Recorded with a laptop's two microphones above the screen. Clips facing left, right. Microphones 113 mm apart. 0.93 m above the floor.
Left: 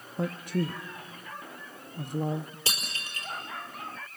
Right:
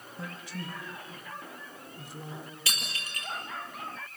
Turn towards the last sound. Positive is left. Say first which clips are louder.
# left 1 dB
turn(degrees=30)  # may be behind; listen again after turning